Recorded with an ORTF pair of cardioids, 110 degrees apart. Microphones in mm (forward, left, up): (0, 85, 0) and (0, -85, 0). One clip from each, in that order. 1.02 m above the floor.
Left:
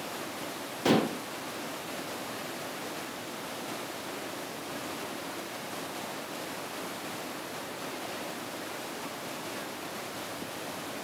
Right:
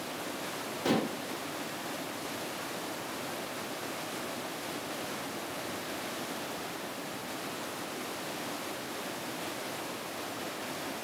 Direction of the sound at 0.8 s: 20° left.